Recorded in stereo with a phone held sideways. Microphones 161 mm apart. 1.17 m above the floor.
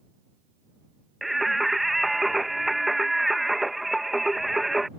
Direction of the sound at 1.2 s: Centre (ahead or behind).